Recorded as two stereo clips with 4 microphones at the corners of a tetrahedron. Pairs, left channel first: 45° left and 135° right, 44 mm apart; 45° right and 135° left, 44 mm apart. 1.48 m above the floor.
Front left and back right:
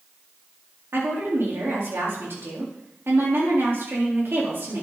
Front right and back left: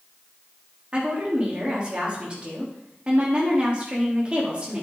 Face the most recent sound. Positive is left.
turn(degrees=-160)